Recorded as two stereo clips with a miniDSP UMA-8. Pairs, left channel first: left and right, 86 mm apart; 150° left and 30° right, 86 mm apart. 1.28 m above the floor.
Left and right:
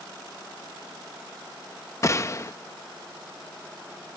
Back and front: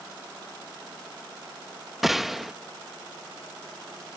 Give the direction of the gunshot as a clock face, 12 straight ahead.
10 o'clock.